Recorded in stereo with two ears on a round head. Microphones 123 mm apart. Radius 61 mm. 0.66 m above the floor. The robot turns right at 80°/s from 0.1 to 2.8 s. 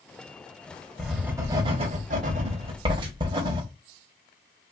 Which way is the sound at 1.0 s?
5° left (ahead or behind).